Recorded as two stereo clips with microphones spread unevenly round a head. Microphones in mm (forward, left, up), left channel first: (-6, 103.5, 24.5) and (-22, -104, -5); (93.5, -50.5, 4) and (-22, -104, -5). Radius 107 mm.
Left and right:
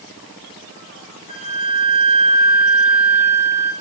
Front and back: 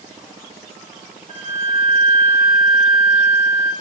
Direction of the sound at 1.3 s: 140° left.